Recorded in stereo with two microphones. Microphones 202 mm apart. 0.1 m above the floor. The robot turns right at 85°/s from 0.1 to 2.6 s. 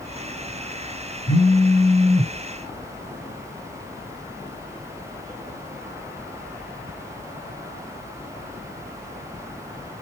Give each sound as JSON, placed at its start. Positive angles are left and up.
{"t": 1.3, "sound": "a phone buzzing", "azimuth_deg": 110, "distance_m": 2.5}